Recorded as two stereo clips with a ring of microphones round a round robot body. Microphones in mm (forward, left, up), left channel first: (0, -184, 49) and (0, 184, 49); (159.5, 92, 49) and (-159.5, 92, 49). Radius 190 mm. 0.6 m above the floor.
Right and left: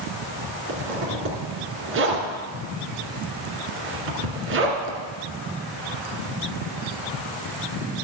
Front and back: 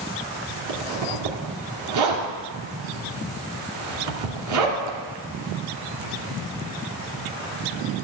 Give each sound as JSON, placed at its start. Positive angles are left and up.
{"t": 0.7, "sound": "a zipper", "azimuth_deg": 150, "distance_m": 2.5}